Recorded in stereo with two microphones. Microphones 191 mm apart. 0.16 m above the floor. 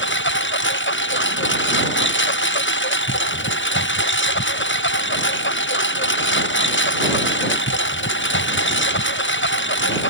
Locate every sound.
0.0 s a lawn mower: 80° left